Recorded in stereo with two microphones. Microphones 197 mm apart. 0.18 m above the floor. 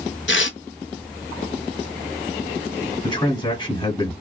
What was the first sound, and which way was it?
Tearing paper, 75° left (ahead or behind).